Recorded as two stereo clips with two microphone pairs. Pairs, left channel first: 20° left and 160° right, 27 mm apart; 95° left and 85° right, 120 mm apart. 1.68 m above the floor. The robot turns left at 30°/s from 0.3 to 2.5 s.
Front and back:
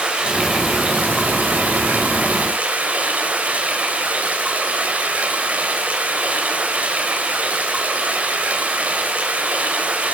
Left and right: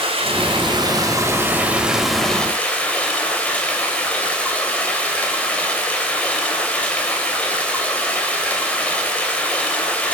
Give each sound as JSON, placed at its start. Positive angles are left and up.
{"t": 0.0, "sound": "running water", "azimuth_deg": -120, "distance_m": 3.5}